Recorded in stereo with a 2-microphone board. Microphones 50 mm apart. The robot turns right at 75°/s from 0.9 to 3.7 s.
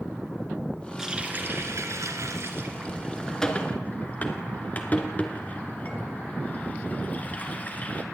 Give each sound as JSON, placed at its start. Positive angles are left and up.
{"t": 1.0, "sound": "a running tap", "side_deg": -10, "distance_m": 2.5}